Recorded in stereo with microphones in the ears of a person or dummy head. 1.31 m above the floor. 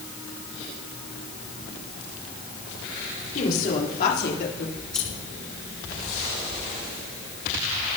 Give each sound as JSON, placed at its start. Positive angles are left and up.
{"t": 3.4, "sound": "a woman speaking", "side_deg": 45, "distance_m": 4.0}
{"t": 4.8, "sound": "scissors", "side_deg": 10, "distance_m": 3.0}